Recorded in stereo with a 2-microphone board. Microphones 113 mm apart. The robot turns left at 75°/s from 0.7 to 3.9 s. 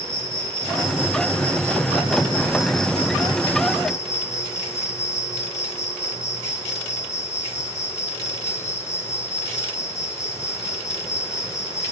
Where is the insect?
30° right, 1.3 m; by 11.9 s 90° left, 1.3 m.